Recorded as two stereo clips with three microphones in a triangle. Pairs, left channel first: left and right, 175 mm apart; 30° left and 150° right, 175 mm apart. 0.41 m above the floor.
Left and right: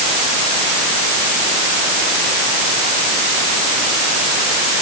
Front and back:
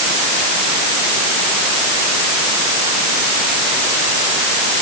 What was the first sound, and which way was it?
Only background noise.